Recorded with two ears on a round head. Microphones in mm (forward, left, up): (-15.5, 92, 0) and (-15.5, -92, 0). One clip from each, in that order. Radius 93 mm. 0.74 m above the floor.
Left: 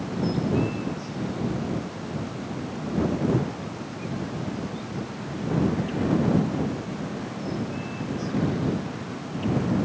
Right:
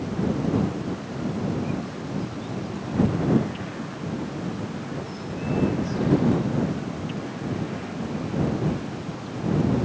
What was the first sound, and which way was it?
Only background noise.